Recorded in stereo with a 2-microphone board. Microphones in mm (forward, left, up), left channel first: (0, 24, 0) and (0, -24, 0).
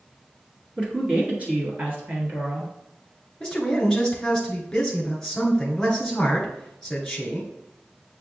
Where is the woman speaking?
20° right (ahead or behind), 1.2 m; by 2.7 s 45° right (ahead or behind), 1.7 m.